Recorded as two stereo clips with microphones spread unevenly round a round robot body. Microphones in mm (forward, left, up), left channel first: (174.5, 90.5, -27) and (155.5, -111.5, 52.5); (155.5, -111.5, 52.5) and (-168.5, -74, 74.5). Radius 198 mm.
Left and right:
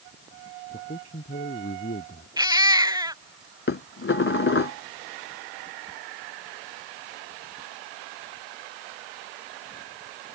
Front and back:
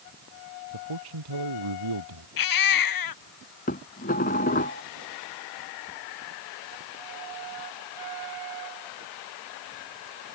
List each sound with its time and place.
0.7 s a man speaking: 150° left
2.4 s a baby crying: 25° right
3.7 s dishes clattering: 60° left